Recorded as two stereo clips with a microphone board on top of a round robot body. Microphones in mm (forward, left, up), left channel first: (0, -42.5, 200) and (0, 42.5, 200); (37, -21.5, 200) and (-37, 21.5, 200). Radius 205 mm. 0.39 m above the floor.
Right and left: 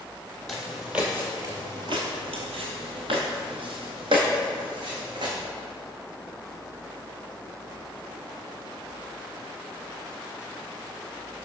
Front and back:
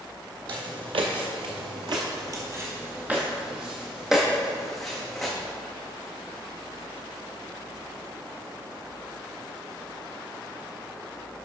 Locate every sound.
0.5 s footsteps: 175° right, 0.9 m; by 5.3 s 60° left, 2 m